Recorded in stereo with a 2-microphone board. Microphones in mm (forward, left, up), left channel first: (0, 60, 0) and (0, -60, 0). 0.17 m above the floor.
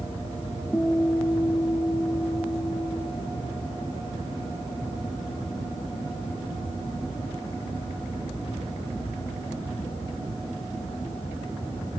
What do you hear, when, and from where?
0.7 s a guitar: 10° left (ahead or behind), 2 m